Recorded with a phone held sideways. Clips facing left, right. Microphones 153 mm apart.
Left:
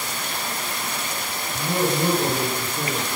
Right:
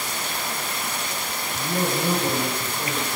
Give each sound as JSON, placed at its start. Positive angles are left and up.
{"t": 1.5, "sound": "a man speaking", "side_deg": 65, "distance_m": 9.5}